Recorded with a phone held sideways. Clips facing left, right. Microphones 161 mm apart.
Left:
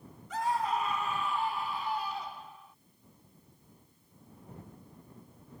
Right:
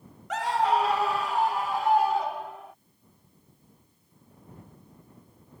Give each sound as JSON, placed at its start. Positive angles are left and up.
{"t": 0.3, "sound": "a scream", "side_deg": -75}